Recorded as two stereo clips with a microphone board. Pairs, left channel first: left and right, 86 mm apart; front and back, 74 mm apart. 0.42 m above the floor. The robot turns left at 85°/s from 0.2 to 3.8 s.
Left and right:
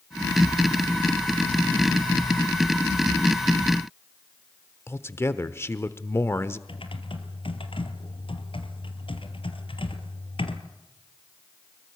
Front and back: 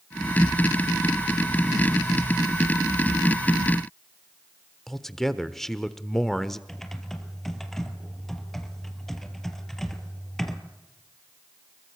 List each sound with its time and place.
4.9 s a man speaking: 80° left, 1.0 m
6.7 s typing on a keyboard: 85° left, 2.5 m